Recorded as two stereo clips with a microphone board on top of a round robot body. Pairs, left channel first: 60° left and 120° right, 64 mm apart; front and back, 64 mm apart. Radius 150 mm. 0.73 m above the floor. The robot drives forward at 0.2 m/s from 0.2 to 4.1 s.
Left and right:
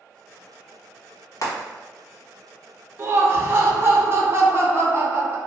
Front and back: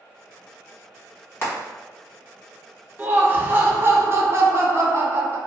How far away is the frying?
About 1.5 m.